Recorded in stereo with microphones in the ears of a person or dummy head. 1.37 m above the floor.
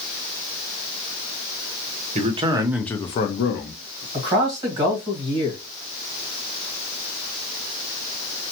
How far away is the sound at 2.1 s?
About 0.8 m.